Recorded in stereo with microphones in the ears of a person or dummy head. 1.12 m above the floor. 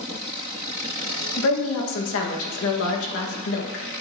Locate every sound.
1.4 s a woman speaking: 65° left (ahead or behind), 1.5 m